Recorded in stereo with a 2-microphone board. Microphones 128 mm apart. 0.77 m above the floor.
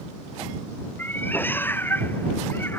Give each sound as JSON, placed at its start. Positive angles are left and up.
{"t": 1.0, "sound": "a cat meowing", "side_deg": 15}